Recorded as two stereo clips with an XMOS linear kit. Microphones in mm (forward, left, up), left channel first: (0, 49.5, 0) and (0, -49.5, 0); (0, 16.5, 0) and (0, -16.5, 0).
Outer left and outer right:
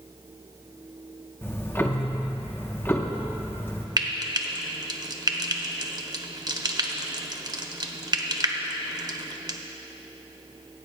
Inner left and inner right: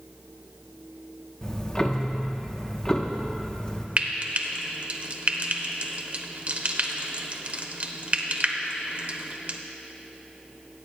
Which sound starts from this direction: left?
Ticking, at 1.4 s.